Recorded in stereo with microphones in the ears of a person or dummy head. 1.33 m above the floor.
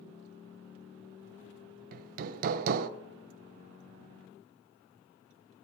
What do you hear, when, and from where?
1.9 s hammering: 45° right (ahead or behind), 0.5 m